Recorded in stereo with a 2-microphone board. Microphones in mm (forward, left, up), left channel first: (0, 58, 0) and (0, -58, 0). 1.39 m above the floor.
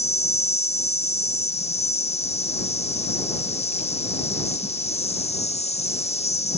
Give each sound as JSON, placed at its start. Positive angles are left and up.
{"t": 0.0, "sound": "an insect", "side_deg": 65}